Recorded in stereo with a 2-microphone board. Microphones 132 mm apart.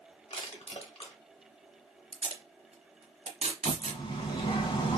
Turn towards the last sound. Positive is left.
turn(degrees=40)  # may be behind; listen again after turning